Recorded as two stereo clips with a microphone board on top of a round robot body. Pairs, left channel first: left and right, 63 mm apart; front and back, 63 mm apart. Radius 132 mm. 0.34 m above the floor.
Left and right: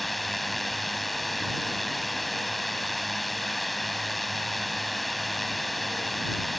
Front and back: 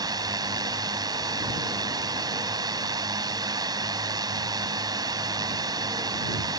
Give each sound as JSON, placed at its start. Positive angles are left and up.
{"t": 0.0, "sound": "a drone", "azimuth_deg": 180}